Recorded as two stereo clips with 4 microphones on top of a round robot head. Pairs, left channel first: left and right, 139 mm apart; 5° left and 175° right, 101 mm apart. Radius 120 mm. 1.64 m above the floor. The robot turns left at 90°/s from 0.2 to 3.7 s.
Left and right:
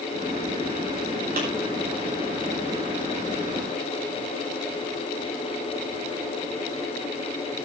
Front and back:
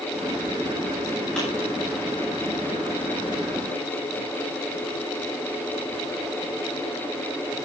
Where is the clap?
80° right, 8 m; by 1.5 s 90° right, 8 m.